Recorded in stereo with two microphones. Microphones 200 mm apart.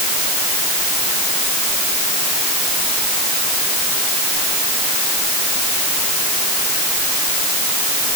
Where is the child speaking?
No child speaking in this recording.